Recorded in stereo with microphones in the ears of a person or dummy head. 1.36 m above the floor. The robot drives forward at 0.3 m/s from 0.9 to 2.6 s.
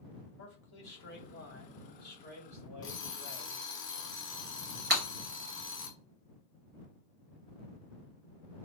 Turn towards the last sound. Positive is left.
turn(degrees=-45)  # may be behind; listen again after turning